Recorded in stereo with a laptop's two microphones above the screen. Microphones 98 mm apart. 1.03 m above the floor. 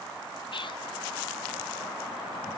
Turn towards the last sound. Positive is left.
turn(degrees=55)  # may be behind; listen again after turning